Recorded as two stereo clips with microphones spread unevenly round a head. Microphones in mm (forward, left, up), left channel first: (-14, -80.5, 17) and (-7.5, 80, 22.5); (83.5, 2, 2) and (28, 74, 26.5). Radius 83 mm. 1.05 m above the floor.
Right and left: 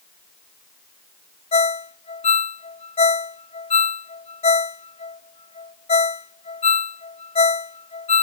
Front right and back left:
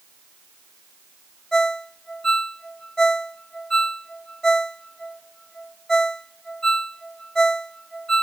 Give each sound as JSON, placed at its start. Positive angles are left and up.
{"t": 1.5, "sound": "a ringtone", "azimuth_deg": -145}